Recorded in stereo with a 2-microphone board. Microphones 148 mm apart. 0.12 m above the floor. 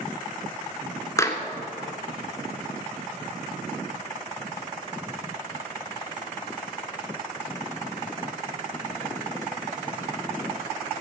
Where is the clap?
20° left (ahead or behind), 1.5 m.